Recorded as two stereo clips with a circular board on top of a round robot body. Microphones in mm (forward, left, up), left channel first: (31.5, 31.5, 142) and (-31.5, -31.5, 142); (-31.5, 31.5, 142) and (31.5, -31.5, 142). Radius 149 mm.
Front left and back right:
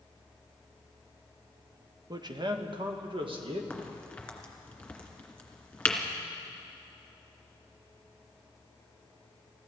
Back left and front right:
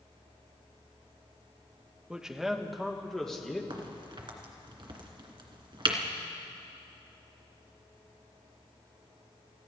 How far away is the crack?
About 2.5 m.